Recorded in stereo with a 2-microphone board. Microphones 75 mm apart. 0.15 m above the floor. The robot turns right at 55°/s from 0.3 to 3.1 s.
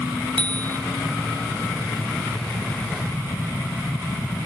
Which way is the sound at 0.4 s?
70° right (ahead or behind).